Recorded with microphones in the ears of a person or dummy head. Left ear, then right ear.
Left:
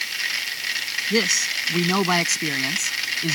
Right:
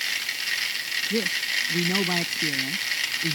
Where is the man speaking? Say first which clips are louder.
Left 7 dB; 60° left (ahead or behind); by 3.4 s 45° left (ahead or behind).